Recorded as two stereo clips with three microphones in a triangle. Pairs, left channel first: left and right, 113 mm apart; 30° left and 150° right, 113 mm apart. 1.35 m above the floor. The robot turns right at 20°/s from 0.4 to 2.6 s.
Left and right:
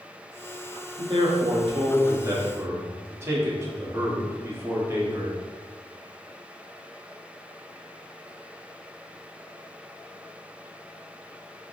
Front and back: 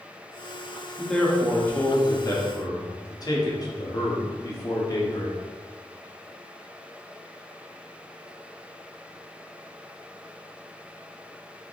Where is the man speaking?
55° right, 0.7 m; by 5.4 s 25° right, 0.7 m.